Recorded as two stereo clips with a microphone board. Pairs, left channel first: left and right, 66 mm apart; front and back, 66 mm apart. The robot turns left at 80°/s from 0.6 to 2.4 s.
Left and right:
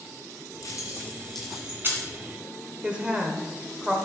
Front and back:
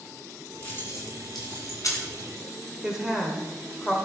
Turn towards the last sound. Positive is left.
turn(degrees=-120)